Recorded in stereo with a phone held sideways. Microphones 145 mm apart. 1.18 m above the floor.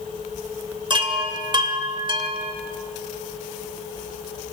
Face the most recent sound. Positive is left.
turn(degrees=-35)  # may be behind; listen again after turning